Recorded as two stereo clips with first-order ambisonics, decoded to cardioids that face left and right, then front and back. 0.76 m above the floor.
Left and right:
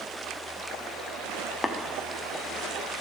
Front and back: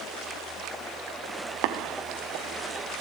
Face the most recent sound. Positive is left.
turn(degrees=170)